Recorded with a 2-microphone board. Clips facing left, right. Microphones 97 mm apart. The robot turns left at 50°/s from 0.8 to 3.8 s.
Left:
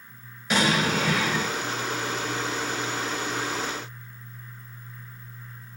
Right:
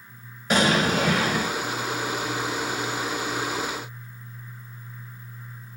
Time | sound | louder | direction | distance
0.5 | an explosion | right 2 dB | 50° right | 2.5 m